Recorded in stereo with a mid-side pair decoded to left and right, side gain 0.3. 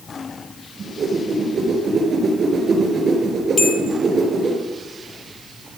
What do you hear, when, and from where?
0.8 s a whoosh: 70° right, 4 m
3.6 s a bell: 40° left, 1.6 m